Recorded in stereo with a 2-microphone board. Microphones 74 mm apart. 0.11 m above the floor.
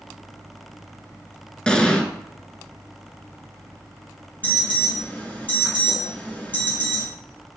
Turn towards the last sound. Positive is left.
turn(degrees=20)  # may be behind; listen again after turning